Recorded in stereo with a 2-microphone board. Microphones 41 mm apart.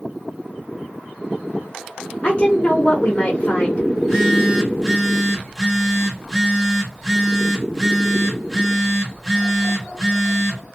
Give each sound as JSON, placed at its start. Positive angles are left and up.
{"t": 2.2, "sound": "a woman speaking", "side_deg": 30, "distance_m": 1.0}
{"t": 4.0, "sound": "a phone buzzing", "side_deg": 0, "distance_m": 1.3}